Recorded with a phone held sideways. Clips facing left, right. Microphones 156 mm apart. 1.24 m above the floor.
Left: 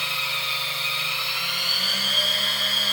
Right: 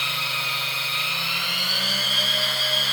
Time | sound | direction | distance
0.0 | a machine running | 75° right (ahead or behind) | 2.5 m